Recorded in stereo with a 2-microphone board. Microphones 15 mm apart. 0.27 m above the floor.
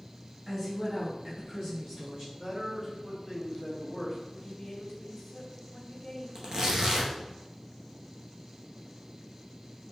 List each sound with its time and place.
0.5 s a woman speaking: 20° right (ahead or behind), 1.7 m; by 2.2 s 25° right (ahead or behind), 2.5 m
2.3 s a man speaking: 30° right (ahead or behind), 1.2 m
4.3 s a woman speaking: 25° left (ahead or behind), 1.4 m
6.3 s tearing paper: 40° right (ahead or behind), 1.3 m